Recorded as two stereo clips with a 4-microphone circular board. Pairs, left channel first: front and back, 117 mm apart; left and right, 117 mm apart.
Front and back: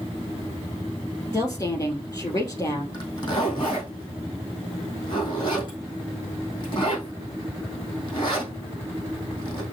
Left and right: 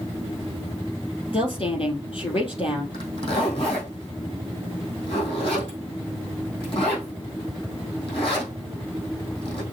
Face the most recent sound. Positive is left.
turn(degrees=50)